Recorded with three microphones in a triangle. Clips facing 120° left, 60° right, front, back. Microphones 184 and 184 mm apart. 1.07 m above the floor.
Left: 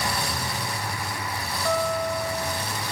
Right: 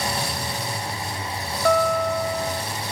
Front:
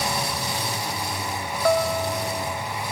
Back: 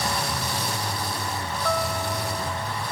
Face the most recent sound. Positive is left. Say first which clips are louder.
# right 5 dB, front 6 dB
turn(degrees=-35)